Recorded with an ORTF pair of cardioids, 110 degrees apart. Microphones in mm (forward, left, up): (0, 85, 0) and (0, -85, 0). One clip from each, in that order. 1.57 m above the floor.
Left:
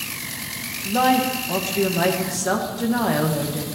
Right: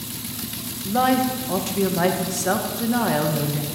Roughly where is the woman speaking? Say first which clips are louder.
Left 1 dB; ahead.